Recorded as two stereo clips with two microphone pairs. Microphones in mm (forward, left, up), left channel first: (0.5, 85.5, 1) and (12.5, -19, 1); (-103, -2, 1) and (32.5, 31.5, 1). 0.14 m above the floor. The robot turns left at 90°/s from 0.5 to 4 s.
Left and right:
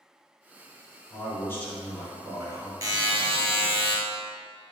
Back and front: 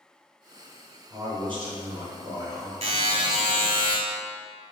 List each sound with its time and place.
1.1 s a man speaking: 80° left, 1.6 m; by 2.7 s 65° right, 1.6 m
2.8 s a buzzer: 30° right, 1.0 m; by 4.0 s 130° right, 1.0 m